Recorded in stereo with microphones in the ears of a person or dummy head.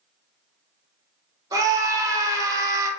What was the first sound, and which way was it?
A scream, 20° right (ahead or behind).